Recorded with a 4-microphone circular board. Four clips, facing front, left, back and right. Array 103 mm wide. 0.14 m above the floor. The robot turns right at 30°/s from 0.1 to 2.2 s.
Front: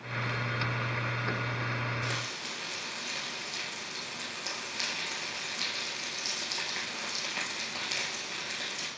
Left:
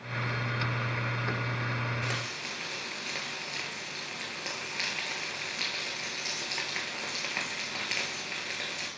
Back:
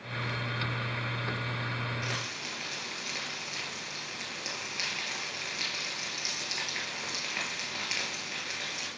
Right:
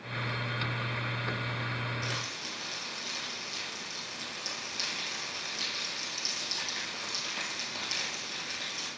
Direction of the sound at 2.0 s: 95° left.